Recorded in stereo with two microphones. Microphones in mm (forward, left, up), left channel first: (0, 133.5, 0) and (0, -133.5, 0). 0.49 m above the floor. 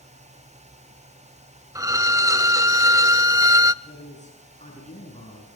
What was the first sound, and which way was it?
A violin, 10° right (ahead or behind).